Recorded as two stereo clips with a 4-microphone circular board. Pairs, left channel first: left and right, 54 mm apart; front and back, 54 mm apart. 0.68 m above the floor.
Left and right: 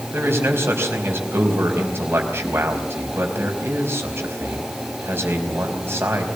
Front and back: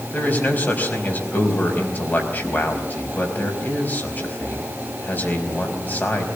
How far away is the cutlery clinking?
I don't hear cutlery clinking.